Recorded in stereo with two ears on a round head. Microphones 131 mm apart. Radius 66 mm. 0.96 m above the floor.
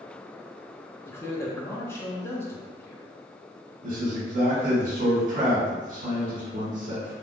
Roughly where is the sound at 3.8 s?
Right.